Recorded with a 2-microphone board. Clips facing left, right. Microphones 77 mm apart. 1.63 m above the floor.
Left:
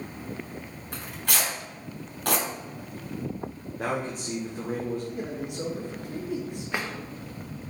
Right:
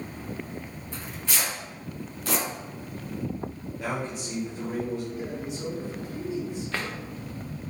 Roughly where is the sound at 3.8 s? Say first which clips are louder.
Left 2 dB; left.